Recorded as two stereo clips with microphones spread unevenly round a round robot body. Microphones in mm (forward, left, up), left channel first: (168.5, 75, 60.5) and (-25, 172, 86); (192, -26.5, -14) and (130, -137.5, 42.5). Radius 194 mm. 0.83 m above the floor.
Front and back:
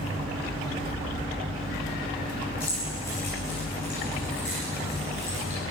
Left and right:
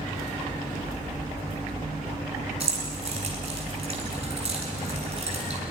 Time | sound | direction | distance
2.6 | keys jangling | 90° right | 7.5 m